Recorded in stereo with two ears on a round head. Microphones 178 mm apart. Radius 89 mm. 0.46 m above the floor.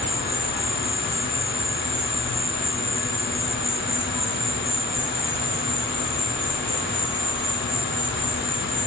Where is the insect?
5° left (ahead or behind), 1.7 m.